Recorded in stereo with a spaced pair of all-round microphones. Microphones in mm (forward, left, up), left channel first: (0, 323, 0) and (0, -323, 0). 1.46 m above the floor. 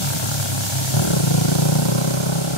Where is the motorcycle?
45° left (ahead or behind).